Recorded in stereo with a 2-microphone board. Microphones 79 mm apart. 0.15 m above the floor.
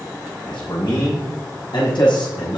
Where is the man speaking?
80° left, 8.5 m.